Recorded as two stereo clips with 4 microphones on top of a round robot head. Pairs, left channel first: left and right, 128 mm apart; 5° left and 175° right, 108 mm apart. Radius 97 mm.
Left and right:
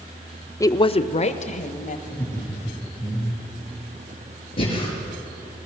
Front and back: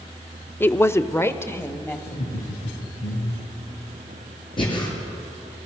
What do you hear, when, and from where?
0.6 s a woman speaking: 55° left, 0.7 m; by 2.0 s 70° left, 2.5 m
2.1 s laughter: 15° left, 3.5 m
4.6 s breathing: 45° left, 6 m